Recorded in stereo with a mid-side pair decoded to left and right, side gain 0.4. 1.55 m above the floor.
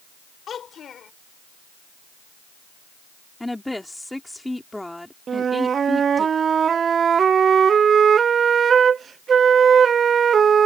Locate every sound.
0.5 s a child speaking: 60° left
3.4 s a woman speaking: 10° left
5.3 s a flute: 50° right